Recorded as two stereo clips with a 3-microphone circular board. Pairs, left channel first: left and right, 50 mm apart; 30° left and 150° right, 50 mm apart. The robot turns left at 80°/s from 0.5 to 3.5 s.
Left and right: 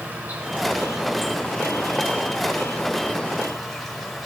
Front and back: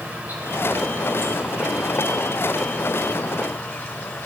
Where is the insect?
120° right, 1.0 m; by 4.3 s straight ahead, 1.0 m.